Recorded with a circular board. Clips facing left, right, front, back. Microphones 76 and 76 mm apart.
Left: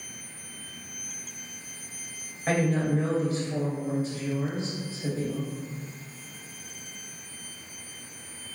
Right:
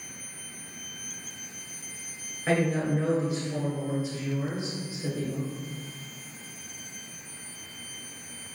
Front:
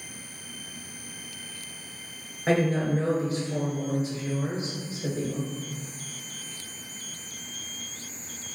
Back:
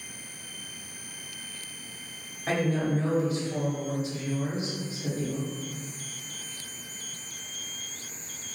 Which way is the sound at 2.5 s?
10° right.